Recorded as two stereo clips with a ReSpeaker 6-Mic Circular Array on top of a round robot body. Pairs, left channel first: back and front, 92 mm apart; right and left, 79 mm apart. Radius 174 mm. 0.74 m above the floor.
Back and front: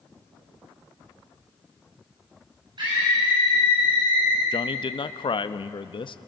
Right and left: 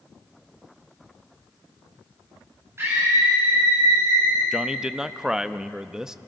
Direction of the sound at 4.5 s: 170° left.